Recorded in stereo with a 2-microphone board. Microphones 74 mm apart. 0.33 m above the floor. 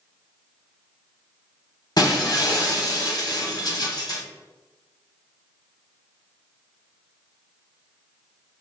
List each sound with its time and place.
2.0 s breaking glass: 65° left (ahead or behind), 1.1 m